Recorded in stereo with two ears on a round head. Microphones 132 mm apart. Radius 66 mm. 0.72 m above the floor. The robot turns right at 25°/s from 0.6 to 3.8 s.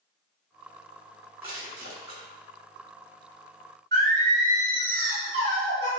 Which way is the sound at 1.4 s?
35° right (ahead or behind).